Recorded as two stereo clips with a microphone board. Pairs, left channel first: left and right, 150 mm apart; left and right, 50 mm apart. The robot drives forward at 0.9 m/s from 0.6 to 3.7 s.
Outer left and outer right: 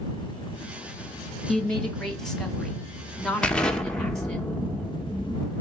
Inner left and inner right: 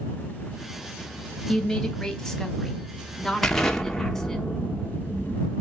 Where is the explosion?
5° left (ahead or behind), 1.1 m.